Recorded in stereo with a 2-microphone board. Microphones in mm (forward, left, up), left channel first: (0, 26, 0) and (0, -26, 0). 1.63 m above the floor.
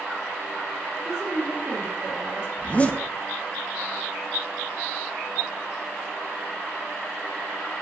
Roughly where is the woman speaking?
Centre.